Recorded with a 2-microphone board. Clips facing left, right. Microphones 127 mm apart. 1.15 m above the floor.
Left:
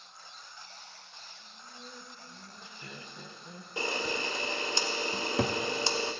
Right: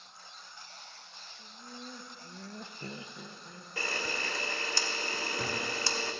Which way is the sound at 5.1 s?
60° left (ahead or behind).